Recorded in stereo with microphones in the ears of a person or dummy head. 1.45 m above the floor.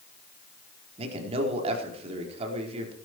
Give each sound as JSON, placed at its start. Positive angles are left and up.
{"t": 1.0, "sound": "a man speaking", "side_deg": -35, "distance_m": 4.0}